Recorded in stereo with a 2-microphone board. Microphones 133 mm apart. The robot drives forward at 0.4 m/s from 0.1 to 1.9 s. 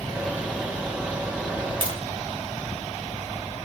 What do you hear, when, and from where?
1.8 s tapping: 40° right (ahead or behind), 1.8 m